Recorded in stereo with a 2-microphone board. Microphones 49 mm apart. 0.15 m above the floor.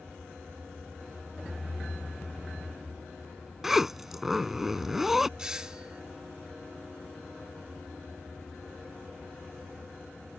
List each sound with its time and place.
3.6 s a zipper: 5° right (ahead or behind)
5.4 s a doorbell: 15° right (ahead or behind)